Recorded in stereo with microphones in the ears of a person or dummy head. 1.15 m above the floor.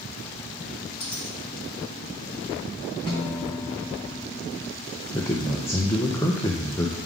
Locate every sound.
1.0 s a dropped coin: 25° left (ahead or behind), 1.2 m
3.1 s a guitar: 20° left (ahead or behind), 1.0 m
5.1 s a man speaking: 10° left (ahead or behind), 0.5 m